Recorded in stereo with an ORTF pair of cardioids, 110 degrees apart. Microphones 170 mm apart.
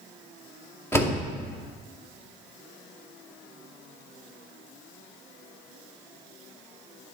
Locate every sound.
0.9 s a door slam: 15° left, 2.5 m